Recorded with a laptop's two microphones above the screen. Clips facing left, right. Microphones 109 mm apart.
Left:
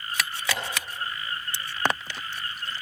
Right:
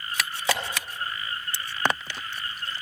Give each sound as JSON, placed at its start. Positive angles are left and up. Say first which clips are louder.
{"t": 0.5, "sound": "tapping", "louder": "right 5 dB", "side_deg": -25, "distance_m": 4.5}